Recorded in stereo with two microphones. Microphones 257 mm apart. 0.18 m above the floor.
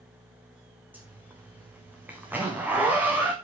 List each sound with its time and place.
0.9 s a zipper: 5° right (ahead or behind), 2.5 m